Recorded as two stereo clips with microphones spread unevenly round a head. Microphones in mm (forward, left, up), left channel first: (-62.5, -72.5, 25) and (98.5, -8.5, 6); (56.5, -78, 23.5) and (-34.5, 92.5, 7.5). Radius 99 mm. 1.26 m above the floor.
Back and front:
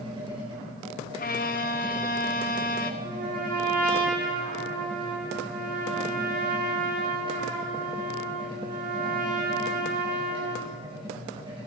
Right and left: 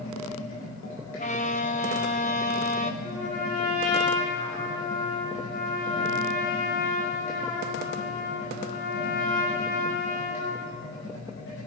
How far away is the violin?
About 1.2 m.